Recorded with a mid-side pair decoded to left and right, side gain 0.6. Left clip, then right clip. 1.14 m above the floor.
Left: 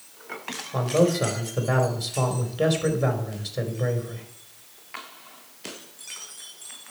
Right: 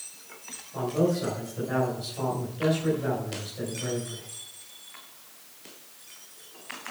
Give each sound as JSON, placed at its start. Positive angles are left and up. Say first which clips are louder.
{"t": 0.7, "sound": "a man speaking", "louder": "left 5 dB", "azimuth_deg": 60, "distance_m": 4.0}